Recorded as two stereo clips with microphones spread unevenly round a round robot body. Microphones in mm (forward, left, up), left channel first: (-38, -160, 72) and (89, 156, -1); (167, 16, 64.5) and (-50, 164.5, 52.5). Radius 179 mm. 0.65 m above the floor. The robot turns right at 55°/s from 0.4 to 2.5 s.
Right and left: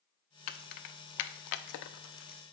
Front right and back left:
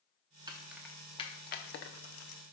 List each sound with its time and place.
0.5 s keys jangling: 145° right, 0.6 m; by 2.4 s 40° right, 0.6 m